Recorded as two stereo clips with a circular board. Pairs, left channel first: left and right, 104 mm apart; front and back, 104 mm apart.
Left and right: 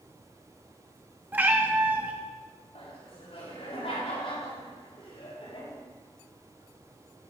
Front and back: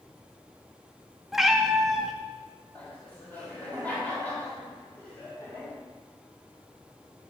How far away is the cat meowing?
About 0.8 m.